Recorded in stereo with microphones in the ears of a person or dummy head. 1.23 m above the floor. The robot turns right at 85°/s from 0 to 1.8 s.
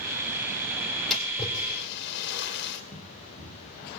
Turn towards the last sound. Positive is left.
turn(degrees=-40)  # may be behind; listen again after turning